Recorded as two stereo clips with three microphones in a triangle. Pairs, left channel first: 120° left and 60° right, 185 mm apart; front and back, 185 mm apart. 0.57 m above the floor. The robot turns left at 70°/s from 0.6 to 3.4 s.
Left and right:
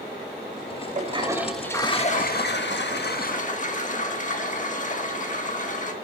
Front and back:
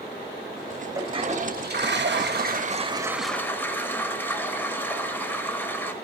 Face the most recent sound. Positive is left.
turn(degrees=80)